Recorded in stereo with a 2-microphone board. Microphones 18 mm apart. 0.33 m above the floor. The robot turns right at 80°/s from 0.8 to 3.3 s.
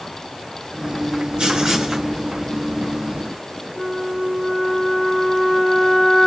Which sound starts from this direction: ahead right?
Writing, at 1.4 s.